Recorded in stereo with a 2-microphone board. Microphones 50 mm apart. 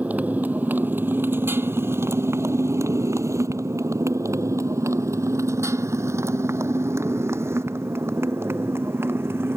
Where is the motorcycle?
30° right (ahead or behind); by 9.6 s 50° right (ahead or behind).